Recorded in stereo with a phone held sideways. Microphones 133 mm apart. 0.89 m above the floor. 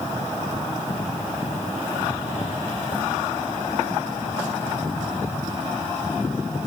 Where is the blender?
No blender in this recording.